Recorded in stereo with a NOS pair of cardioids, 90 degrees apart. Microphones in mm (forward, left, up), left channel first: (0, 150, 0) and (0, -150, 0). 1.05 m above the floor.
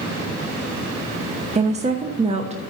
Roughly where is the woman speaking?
Ahead.